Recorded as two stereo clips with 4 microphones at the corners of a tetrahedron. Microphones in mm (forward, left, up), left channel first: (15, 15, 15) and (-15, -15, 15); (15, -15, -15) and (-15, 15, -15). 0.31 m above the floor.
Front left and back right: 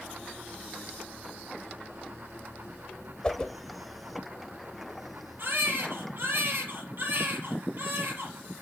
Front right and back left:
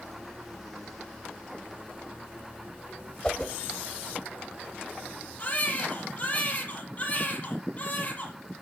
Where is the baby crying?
100° right, 6 m.